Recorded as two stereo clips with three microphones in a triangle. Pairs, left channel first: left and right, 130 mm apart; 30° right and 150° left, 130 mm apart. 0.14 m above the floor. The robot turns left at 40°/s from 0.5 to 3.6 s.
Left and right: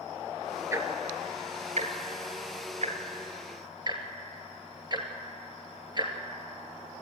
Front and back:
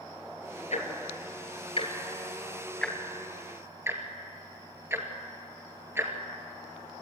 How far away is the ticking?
About 2.5 m.